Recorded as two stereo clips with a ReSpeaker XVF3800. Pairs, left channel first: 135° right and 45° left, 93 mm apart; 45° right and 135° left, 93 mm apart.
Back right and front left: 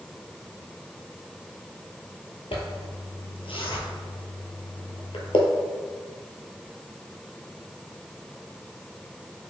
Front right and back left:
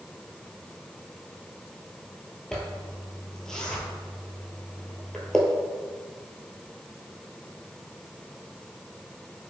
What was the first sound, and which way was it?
A zipper, 130° right.